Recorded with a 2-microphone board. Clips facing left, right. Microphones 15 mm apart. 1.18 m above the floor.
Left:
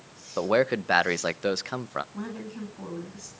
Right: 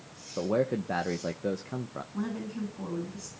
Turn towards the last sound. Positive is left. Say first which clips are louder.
# right 2 dB
turn(degrees=-5)  # may be behind; listen again after turning